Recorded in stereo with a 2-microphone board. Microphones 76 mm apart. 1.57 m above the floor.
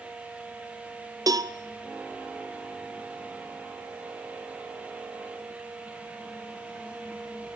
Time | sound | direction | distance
1.3 | a cowbell | 55° right (ahead or behind) | 0.6 m